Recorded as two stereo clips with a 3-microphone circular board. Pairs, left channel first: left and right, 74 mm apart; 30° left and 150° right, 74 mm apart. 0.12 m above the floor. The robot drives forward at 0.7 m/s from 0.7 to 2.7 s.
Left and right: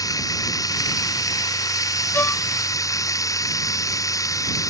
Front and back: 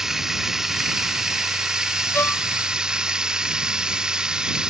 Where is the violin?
55° left; by 2.5 s 95° left.